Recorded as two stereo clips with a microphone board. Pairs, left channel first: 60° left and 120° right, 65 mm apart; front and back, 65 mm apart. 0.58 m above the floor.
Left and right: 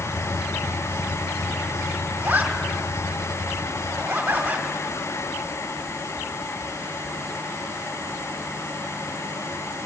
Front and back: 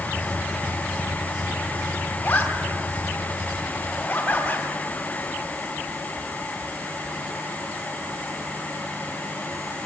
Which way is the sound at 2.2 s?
55° right.